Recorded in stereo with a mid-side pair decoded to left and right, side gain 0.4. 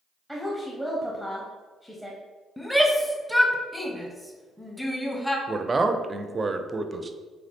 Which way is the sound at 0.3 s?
5° left.